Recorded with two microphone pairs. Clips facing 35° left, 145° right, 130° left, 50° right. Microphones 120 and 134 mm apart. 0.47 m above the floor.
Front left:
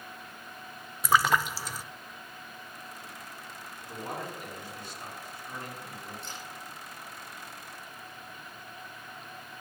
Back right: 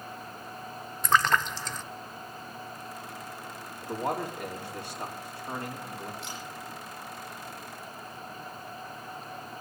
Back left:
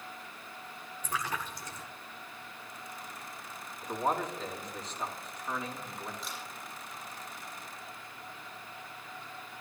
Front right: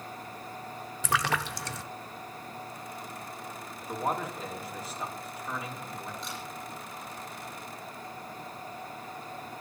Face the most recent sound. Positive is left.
turn(degrees=-140)